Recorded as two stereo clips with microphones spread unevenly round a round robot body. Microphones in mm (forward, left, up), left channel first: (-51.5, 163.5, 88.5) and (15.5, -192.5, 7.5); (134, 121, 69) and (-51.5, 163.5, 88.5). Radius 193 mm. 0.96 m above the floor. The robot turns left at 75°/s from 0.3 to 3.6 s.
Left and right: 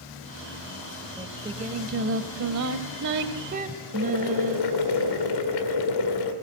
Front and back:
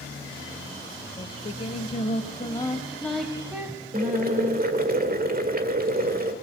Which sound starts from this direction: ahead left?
Singing, at 1.2 s.